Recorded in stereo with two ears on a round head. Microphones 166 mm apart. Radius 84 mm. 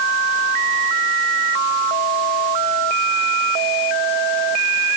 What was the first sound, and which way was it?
Only background noise.